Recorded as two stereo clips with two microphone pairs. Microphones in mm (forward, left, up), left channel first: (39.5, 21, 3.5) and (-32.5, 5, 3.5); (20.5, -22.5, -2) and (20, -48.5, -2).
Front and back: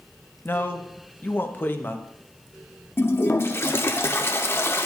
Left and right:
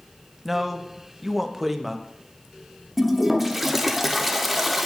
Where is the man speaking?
20° right, 0.6 m.